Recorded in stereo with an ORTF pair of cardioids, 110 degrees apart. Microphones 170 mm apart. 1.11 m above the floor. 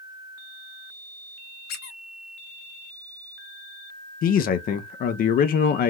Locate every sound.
1.7 s a squeak: 70° left, 1.1 m
4.2 s a man speaking: 60° left, 0.6 m